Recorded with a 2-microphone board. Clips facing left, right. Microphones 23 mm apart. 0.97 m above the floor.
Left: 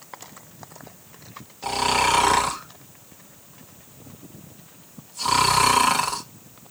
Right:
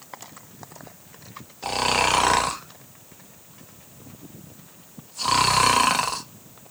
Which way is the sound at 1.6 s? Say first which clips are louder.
Left 1 dB; 10° right (ahead or behind).